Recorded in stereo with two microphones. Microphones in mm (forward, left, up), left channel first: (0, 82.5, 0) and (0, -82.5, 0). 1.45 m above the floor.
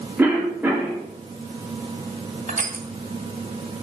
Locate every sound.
0.2 s a cough: 10° right (ahead or behind), 4 m
2.5 s crushing: 50° right (ahead or behind), 3 m